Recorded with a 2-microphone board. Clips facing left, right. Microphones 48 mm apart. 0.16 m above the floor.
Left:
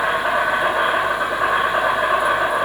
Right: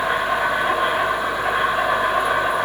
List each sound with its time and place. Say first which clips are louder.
0.0 s an insect: left 1 dB; 60° left (ahead or behind), 8.5 m